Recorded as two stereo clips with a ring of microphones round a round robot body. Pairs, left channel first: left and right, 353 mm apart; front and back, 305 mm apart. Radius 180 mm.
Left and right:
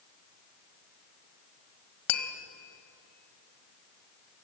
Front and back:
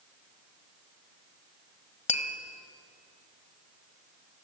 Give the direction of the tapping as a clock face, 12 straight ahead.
10 o'clock.